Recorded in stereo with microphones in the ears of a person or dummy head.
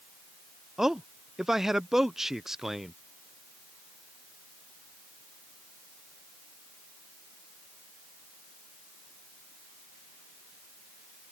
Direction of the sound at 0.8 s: 5° right (ahead or behind).